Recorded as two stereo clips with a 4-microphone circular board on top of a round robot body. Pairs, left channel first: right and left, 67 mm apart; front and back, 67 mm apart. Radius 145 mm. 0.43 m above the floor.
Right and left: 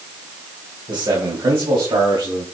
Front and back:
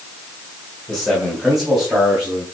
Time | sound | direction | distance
0.9 | a man speaking | 85° left | 2.5 m